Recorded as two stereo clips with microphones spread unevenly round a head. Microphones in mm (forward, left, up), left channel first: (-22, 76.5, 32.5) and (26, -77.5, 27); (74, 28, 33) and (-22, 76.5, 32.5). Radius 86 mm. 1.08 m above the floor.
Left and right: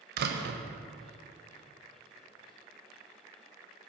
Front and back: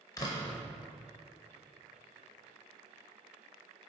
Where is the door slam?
90° right, 0.5 m.